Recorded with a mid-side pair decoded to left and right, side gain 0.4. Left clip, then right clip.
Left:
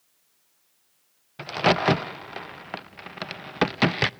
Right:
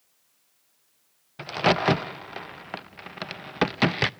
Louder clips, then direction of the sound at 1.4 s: Left 1 dB; 5° left.